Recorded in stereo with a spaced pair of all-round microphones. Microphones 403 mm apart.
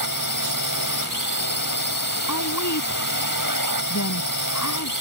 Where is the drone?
55° right (ahead or behind).